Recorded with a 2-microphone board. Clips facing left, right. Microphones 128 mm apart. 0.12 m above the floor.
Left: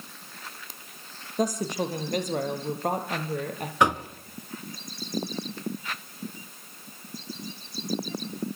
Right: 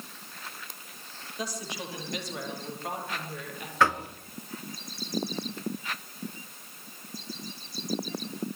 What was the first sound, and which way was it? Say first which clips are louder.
A woman speaking: left 10 dB; 45° left (ahead or behind).